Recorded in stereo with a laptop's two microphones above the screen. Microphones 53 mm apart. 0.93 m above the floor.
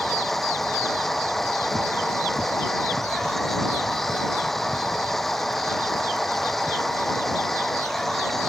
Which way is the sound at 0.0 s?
5° left (ahead or behind).